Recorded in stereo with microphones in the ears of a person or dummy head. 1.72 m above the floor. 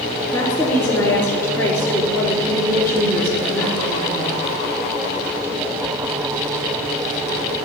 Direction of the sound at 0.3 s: 10° left (ahead or behind).